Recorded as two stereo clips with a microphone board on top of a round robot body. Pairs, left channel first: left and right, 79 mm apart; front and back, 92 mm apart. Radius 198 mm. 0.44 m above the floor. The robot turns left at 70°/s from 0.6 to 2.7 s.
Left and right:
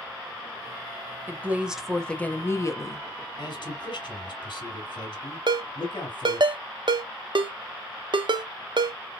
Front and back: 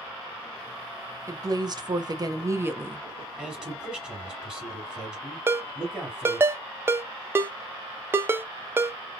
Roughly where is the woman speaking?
Behind right.